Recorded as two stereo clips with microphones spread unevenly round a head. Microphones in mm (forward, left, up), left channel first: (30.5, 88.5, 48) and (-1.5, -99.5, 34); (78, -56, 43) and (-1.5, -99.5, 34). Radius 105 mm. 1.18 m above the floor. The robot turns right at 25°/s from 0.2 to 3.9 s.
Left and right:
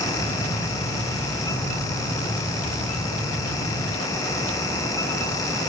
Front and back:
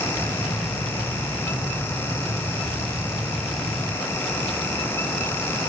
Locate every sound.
Only background noise.